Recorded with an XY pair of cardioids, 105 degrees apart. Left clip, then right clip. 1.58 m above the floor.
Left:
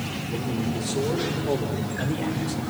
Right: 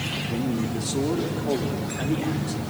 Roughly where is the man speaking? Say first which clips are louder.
Right 1 dB; ahead right.